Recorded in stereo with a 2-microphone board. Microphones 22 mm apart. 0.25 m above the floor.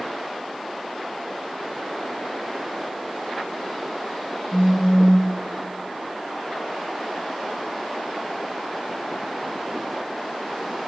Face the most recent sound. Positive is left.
turn(degrees=45)  # may be behind; listen again after turning